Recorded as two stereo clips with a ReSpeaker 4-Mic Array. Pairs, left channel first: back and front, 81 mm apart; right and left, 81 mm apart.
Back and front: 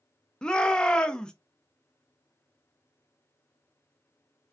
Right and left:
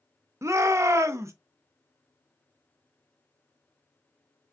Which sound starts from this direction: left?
A shout, at 0.4 s.